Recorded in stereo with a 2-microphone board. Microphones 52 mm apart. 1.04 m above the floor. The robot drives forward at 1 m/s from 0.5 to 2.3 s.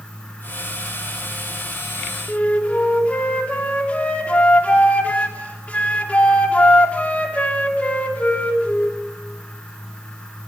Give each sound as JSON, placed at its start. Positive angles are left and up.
{"t": 2.3, "sound": "a flute", "side_deg": 25, "distance_m": 2.5}